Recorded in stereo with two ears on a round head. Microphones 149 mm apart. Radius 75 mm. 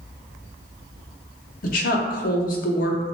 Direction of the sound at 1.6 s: 55° left (ahead or behind).